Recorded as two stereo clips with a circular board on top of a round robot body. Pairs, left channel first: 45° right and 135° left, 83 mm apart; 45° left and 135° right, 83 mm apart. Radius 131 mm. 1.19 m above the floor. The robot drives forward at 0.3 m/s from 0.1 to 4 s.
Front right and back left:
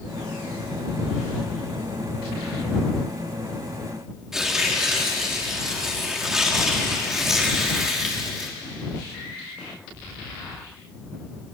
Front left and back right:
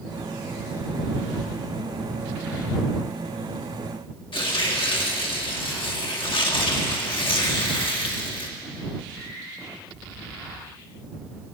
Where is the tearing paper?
50° left, 1.5 m.